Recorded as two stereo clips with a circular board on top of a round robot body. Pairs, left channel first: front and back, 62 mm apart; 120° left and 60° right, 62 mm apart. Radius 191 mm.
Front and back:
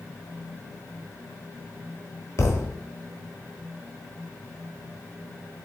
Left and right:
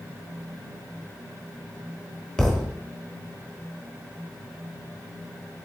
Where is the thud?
40° left, 1.1 m.